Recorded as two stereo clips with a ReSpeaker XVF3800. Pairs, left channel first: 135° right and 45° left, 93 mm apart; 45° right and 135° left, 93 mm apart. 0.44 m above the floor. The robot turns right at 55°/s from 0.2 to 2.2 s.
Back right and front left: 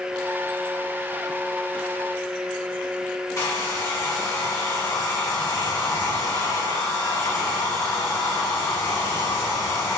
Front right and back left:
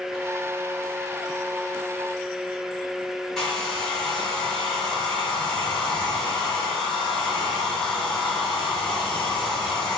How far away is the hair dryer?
About 1.2 m.